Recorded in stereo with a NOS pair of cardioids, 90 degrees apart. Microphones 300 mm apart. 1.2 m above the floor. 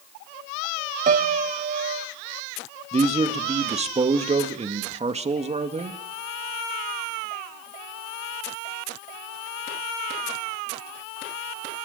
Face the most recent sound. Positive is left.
turn(degrees=-20)